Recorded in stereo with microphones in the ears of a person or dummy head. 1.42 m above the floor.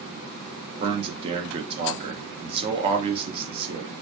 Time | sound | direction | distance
0.8 | a man speaking | 30° right (ahead or behind) | 0.6 m